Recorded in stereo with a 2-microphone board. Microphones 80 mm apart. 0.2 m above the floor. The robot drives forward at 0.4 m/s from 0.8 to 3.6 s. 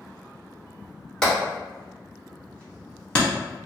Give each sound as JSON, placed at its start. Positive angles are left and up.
{"t": 1.2, "sound": "hammering", "side_deg": 10, "distance_m": 1.8}